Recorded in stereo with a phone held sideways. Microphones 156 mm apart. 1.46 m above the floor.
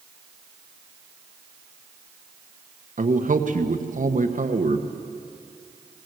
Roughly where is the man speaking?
Right.